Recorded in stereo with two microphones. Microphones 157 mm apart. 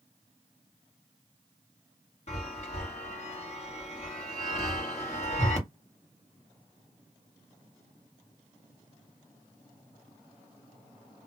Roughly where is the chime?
Left.